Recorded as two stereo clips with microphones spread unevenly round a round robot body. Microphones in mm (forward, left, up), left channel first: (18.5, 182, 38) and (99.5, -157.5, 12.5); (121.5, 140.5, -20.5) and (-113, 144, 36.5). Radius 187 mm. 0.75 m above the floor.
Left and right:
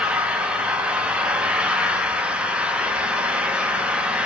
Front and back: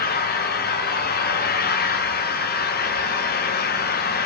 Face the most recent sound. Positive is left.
turn(degrees=5)